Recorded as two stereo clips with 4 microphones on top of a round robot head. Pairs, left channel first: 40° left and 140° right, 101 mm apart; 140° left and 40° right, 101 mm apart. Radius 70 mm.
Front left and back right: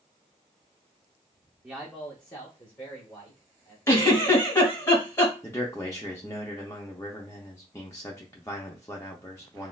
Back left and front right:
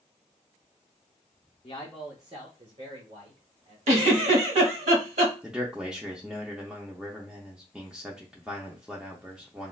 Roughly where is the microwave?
No microwave in this recording.